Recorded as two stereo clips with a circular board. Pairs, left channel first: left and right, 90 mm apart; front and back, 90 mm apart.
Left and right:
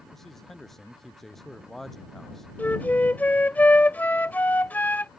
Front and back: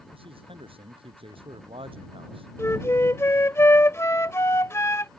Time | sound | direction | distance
0.1 | a man speaking | 175° left | ?
2.6 | a flute | 30° left | ?